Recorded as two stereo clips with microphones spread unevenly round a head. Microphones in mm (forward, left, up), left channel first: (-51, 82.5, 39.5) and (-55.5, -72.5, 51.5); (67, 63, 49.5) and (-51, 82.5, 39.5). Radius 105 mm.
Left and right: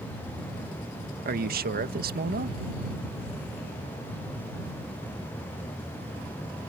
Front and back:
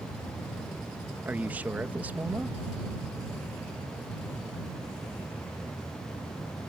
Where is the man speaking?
110° right.